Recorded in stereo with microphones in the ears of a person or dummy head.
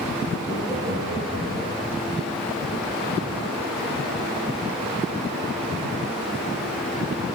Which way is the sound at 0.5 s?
Centre (ahead or behind).